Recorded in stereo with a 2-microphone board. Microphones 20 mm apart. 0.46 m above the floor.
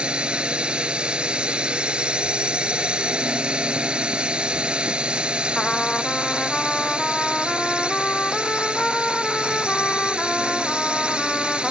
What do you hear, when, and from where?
0.0 s a drone: 50° right (ahead or behind)
5.5 s a trumpet: 30° left (ahead or behind)